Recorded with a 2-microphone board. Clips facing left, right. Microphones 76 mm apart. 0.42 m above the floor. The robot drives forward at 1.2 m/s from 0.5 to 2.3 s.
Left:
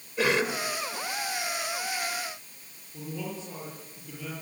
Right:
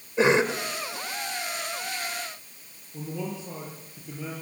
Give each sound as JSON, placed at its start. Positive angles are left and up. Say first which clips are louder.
{"t": 0.2, "sound": "a cough", "louder": "right 5 dB", "side_deg": -25, "distance_m": 1.5}
{"t": 2.9, "sound": "a man speaking", "louder": "right 3 dB", "side_deg": -20, "distance_m": 8.0}